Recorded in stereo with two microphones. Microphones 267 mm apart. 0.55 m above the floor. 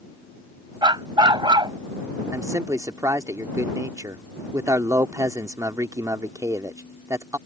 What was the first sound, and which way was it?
A dog barking, 15° right (ahead or behind).